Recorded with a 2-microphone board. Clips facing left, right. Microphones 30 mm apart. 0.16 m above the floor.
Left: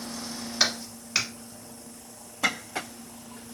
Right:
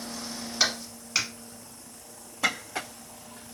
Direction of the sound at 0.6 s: 5° left (ahead or behind).